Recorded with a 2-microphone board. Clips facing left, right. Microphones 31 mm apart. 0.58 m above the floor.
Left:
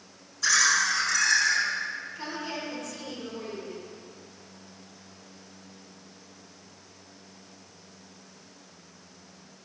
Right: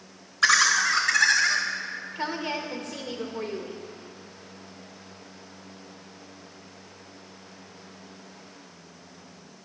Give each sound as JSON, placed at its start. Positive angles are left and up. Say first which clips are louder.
{"t": 0.4, "sound": "laughter", "louder": "right 3 dB", "side_deg": -70, "distance_m": 2.5}
{"t": 2.1, "sound": "a woman speaking", "louder": "right 5 dB", "side_deg": -45, "distance_m": 1.9}